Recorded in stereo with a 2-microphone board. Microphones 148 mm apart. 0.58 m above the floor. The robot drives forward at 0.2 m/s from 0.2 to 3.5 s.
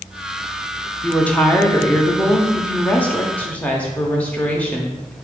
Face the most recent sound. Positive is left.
turn(degrees=10)  # may be behind; listen again after turning